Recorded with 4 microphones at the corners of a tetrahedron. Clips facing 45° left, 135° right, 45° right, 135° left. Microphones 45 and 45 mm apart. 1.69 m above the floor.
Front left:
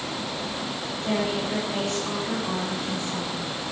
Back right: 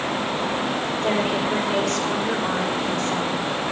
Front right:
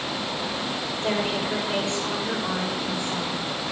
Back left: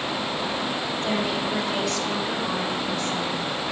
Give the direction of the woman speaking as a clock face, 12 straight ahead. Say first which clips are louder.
Back right 3 dB, front right 1 dB; 4 o'clock.